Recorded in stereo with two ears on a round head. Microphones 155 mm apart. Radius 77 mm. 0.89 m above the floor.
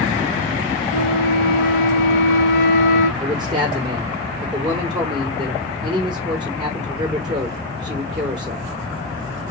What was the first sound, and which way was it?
A flute, 55° left (ahead or behind).